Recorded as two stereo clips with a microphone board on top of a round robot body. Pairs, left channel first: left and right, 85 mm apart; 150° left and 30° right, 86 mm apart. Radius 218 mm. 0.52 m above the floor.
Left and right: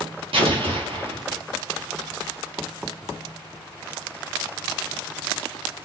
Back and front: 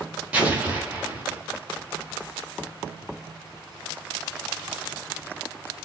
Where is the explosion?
105° right, 1.4 m.